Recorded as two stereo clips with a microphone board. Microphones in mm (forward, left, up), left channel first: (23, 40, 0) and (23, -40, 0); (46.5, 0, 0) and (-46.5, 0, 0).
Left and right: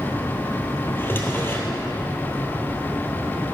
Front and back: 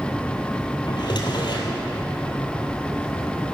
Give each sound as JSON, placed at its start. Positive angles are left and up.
{"t": 0.9, "sound": "a drawer", "azimuth_deg": 30, "distance_m": 1.6}